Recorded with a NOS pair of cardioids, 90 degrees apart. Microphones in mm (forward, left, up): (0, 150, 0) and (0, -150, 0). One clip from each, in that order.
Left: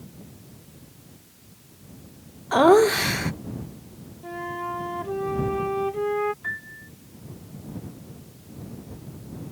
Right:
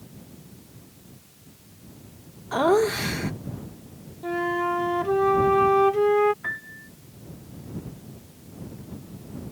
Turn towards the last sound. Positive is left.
turn(degrees=-45)